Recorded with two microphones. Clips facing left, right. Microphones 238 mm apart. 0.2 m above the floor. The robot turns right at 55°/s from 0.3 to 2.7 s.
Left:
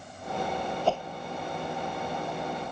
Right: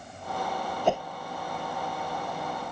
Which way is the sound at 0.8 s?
20° right (ahead or behind).